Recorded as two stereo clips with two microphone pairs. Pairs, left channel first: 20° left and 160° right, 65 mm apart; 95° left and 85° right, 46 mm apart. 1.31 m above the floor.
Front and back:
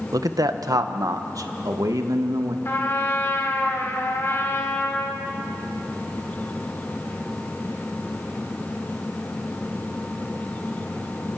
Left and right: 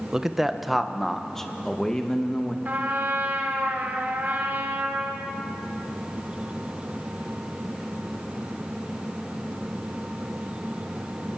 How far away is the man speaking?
About 1.1 m.